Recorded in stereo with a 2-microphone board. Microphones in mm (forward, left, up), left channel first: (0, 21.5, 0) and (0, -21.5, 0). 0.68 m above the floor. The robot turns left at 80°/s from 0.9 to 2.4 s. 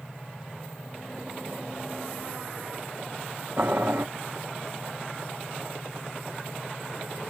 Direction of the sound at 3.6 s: 55° right (ahead or behind).